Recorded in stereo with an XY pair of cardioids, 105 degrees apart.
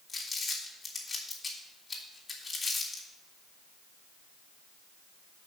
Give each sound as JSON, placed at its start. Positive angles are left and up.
{"t": 0.1, "sound": "crumpling", "azimuth_deg": 25, "distance_m": 3.5}